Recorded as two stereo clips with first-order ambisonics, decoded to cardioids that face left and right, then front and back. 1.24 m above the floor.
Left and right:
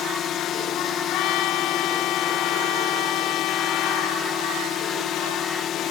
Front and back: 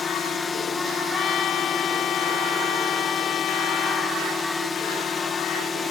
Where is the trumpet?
55° left.